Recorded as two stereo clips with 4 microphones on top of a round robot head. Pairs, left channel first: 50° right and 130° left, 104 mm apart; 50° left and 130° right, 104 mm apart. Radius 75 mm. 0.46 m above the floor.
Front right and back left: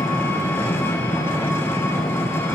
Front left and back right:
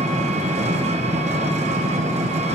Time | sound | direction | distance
0.0 | an engine running | 120° right | 1.5 m